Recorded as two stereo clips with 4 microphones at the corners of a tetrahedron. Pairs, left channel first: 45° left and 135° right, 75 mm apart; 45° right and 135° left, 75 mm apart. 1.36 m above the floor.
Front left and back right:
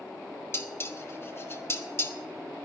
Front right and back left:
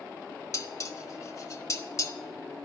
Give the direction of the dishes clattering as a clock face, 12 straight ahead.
12 o'clock.